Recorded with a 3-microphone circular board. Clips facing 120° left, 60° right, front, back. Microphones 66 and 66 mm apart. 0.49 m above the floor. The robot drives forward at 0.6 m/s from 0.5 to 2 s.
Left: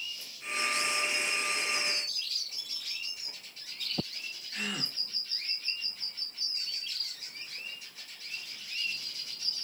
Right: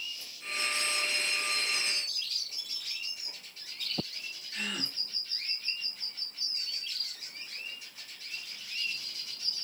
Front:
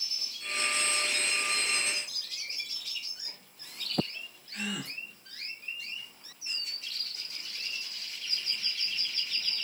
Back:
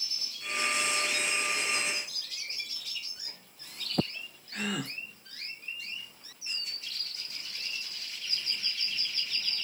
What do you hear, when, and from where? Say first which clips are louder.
4.5 s a gasp: even, back 3 dB; 160° right, 0.7 m